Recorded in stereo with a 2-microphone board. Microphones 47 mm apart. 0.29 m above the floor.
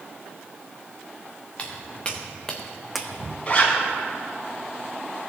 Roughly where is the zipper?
Left.